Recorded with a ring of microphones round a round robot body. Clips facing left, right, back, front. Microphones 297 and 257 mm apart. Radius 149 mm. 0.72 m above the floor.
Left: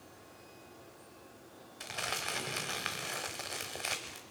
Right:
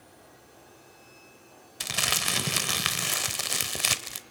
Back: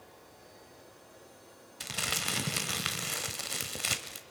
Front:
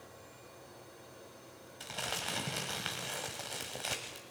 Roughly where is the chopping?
I don't hear chopping.